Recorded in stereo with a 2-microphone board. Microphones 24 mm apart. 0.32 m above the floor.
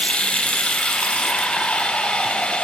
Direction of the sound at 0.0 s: 60° left (ahead or behind).